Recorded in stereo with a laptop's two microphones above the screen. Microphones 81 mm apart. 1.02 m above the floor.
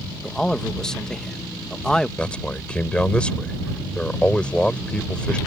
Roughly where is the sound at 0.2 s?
Centre.